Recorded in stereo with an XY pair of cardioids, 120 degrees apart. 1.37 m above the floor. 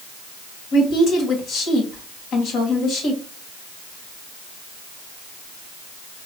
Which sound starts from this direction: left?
A woman speaking, at 0.7 s.